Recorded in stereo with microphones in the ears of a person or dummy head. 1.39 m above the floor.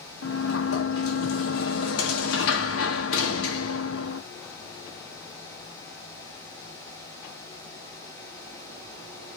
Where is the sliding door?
70° left (ahead or behind), 0.9 m.